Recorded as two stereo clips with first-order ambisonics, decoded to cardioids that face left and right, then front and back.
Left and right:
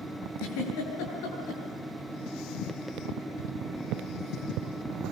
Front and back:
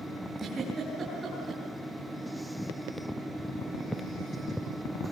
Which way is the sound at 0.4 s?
110° left.